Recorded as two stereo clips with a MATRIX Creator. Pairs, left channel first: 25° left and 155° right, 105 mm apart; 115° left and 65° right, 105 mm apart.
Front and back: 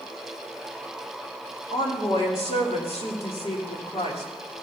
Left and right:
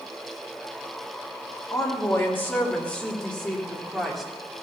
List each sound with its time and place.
1.7 s a woman speaking: 50° left, 3 m; by 4.3 s 25° left, 3 m